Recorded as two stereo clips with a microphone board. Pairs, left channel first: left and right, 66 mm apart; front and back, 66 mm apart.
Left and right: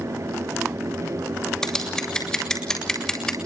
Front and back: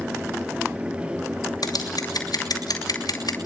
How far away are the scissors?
About 7.5 m.